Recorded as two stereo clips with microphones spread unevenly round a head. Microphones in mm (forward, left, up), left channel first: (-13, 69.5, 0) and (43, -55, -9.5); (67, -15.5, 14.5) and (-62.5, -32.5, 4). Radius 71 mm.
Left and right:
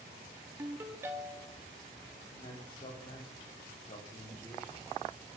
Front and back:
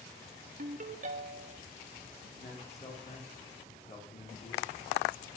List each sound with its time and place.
0.6 s a ringtone: 140° right, 1.0 m
2.3 s a man speaking: 55° left, 3.5 m